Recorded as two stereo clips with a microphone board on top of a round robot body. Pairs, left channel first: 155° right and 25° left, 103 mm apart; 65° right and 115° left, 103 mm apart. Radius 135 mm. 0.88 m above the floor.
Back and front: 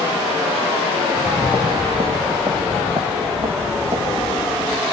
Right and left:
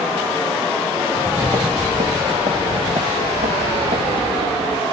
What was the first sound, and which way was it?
Footsteps, 80° left.